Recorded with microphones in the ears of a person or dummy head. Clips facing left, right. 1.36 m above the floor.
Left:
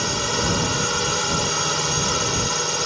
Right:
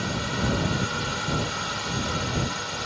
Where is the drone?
60° left (ahead or behind).